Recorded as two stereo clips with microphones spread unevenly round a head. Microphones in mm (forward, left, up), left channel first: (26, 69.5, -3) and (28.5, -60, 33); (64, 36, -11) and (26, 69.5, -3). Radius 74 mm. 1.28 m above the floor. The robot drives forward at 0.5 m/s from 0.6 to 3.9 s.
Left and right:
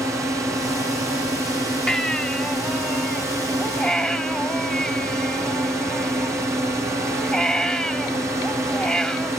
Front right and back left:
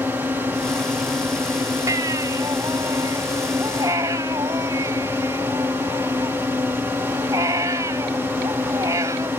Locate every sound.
0.0 s a drone: 170° right
1.9 s a baby crying: straight behind